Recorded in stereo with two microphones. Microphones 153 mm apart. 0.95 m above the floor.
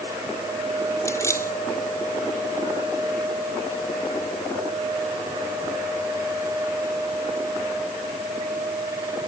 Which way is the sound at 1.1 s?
20° left (ahead or behind).